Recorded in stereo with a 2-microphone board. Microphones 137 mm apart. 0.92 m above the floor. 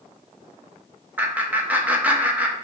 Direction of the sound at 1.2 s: 10° right (ahead or behind).